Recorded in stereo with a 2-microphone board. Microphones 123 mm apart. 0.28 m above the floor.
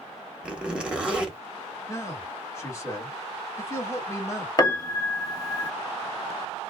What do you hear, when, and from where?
0.4 s a zipper: 10° right (ahead or behind), 1.1 m
1.9 s a man speaking: 25° left (ahead or behind), 1.5 m
4.6 s a piano: 30° left (ahead or behind), 0.7 m